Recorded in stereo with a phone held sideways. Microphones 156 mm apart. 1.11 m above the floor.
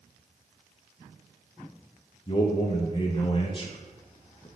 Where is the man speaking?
35° left (ahead or behind), 0.5 m.